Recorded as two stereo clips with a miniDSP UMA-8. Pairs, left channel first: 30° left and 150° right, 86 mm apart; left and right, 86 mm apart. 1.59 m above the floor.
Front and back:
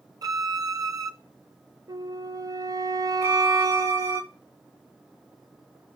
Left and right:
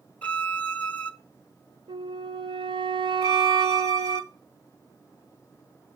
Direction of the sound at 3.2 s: 105° right.